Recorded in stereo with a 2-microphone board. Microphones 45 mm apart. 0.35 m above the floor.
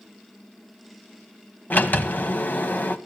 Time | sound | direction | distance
1.7 | a sliding door | 40° left (ahead or behind) | 1.2 m